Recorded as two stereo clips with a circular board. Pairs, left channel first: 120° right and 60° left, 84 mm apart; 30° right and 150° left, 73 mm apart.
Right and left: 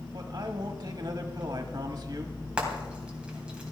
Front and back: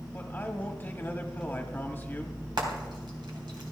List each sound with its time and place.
0.1 s a man speaking: 35° left, 1.4 m
2.6 s frying: 135° left, 3 m